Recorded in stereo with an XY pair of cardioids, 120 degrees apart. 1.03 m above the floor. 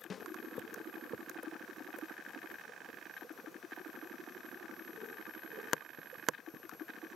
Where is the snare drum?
35° left, 0.5 m.